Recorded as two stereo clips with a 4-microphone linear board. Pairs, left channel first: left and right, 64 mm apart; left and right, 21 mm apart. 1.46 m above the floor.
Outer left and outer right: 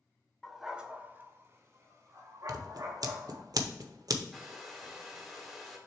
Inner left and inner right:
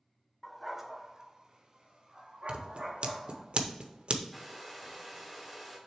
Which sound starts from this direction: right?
Scissors, at 2.5 s.